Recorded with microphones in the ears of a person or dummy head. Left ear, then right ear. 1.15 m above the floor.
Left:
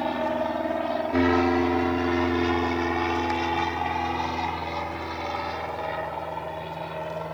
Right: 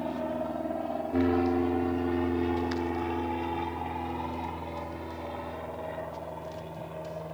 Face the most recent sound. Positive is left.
turn(degrees=65)  # may be behind; listen again after turning